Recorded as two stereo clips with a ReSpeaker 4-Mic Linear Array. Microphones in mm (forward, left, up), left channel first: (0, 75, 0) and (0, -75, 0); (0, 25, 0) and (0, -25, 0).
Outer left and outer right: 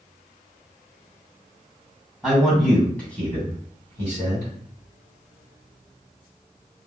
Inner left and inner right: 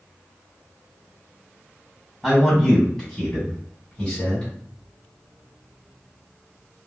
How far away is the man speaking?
About 1.9 m.